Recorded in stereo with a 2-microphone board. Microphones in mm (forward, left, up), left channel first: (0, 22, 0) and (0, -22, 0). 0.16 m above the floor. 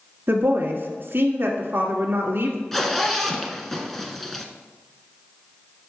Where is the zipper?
5° left (ahead or behind), 0.9 m.